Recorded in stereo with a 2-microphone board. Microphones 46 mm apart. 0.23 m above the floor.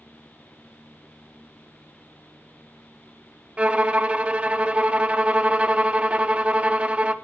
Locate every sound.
3.6 s a violin: 25° right (ahead or behind), 0.7 m